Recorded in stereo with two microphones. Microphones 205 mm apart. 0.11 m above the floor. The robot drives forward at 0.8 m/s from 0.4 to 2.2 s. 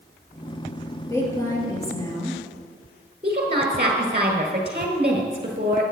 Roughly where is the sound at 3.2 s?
Right.